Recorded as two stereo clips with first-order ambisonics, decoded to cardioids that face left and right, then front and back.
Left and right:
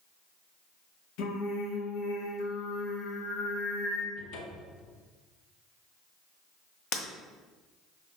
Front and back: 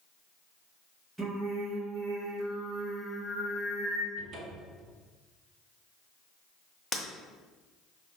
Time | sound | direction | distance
1.2 | singing | 100° left | 1.5 m
4.2 | a cupboard door | 125° left | 1.3 m
6.9 | breaking glass | 70° left | 1.3 m